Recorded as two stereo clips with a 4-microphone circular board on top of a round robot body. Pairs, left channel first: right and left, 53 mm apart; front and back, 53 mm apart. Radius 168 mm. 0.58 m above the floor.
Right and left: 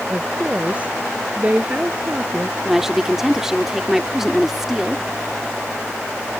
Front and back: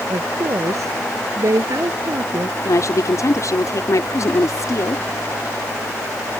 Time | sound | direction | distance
0.1 | a woman speaking | 160° left | ?
2.6 | a woman speaking | 10° left | ?